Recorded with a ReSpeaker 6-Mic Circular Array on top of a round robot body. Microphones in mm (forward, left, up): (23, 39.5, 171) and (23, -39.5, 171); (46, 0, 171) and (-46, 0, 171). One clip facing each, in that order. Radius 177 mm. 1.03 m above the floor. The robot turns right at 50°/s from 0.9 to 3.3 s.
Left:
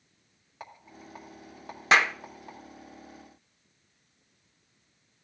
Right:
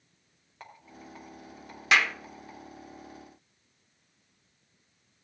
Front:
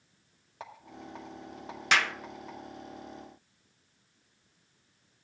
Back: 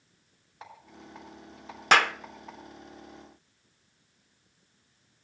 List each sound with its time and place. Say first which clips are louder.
0.6 s a rattle: left 1 dB, front 3 dB; 10° left, 1.8 m; by 2.6 s 95° left, 1.8 m
1.9 s a clap: left 2 dB, back 6 dB; 140° left, 0.6 m; by 2.1 s 150° left, 0.6 m